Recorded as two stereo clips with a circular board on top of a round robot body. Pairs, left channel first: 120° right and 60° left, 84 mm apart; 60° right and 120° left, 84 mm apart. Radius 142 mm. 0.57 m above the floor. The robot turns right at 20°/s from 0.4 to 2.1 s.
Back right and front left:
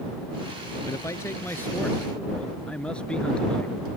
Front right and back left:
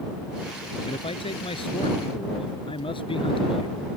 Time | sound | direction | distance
0.8 | a man speaking | 70° right | ?